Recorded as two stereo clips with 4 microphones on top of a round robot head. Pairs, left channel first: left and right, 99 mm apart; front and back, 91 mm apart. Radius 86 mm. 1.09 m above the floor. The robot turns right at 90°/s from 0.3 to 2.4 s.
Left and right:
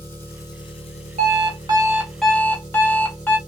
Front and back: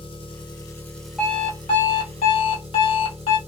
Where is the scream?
No scream in this recording.